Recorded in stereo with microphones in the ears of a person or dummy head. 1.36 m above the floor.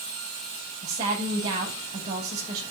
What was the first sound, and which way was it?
A woman speaking, 35° right (ahead or behind).